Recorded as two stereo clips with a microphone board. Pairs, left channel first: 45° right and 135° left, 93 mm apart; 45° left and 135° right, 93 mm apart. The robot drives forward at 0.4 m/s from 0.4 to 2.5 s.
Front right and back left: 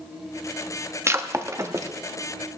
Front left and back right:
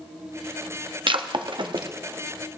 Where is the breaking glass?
165° right, 0.7 m; by 1.9 s 170° right, 1.1 m.